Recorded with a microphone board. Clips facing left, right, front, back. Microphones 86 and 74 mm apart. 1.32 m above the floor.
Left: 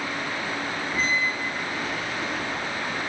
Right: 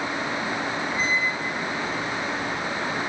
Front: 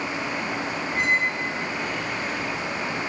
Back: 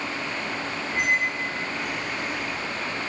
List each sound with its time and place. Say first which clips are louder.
0.9 s a squeak: left 2 dB, front 1 dB; 95° left, 2.5 m